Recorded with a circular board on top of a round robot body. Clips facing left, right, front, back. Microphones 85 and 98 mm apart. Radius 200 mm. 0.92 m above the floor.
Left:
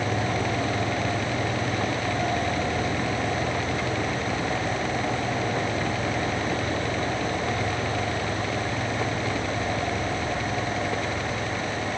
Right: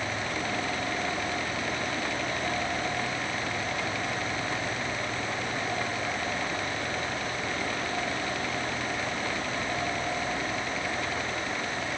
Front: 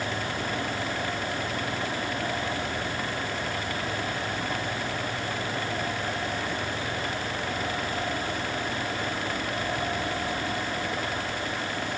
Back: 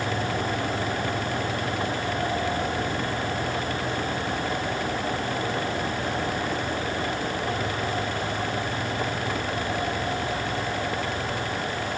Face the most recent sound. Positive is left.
No sound to turn to.